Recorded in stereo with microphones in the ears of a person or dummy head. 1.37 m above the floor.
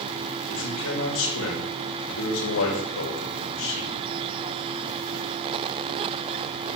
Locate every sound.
0.5 s a man speaking: 75° left (ahead or behind), 6 m